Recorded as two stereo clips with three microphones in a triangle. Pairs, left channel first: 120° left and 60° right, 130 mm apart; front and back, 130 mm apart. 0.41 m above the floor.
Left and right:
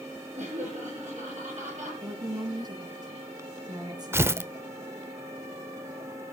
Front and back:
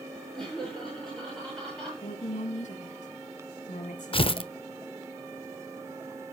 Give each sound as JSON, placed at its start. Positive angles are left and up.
{"t": 0.3, "sound": "laughter", "azimuth_deg": -85, "distance_m": 9.5}
{"t": 2.0, "sound": "a woman speaking", "azimuth_deg": -5, "distance_m": 3.5}
{"t": 4.1, "sound": "tearing paper", "azimuth_deg": 0, "distance_m": 0.6}